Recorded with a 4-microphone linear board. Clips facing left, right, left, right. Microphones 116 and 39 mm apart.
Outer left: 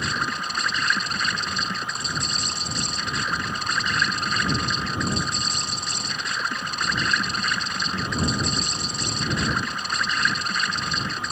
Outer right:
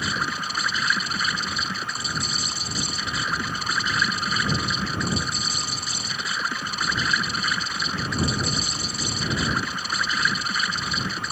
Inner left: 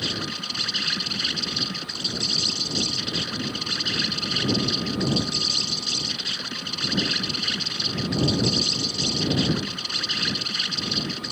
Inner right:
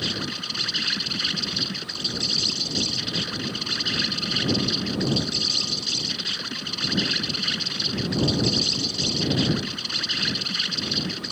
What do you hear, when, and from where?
0.0 s an insect: centre (ahead or behind)